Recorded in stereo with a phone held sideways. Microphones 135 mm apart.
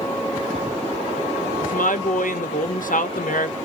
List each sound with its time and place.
1.6 s a woman speaking: 85° left, 0.6 m